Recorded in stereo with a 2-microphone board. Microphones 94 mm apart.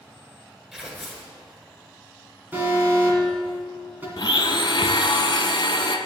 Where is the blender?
55° left (ahead or behind), 0.6 m.